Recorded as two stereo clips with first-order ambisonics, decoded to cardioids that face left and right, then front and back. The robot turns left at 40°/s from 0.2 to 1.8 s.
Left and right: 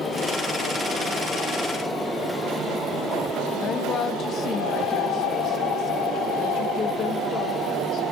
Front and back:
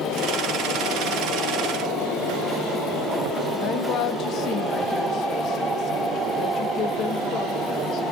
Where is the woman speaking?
40° left, 1.2 m.